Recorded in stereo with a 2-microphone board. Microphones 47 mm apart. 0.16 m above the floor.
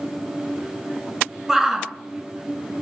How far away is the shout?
About 1.8 m.